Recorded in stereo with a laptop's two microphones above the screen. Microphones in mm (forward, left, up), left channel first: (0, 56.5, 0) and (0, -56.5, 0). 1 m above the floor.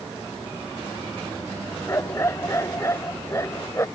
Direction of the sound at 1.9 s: 25° left (ahead or behind).